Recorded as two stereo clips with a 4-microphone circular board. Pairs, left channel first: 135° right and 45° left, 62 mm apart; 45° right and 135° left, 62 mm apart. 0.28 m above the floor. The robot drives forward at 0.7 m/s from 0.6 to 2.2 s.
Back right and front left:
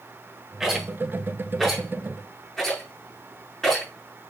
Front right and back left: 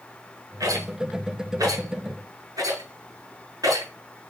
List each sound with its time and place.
0.6 s a rattle: 130° left, 4.5 m; by 3.9 s 140° left, 5.5 m